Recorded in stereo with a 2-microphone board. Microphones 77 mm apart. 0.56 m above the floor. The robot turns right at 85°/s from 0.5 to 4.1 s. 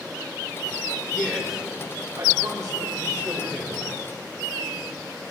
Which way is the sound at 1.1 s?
30° left (ahead or behind).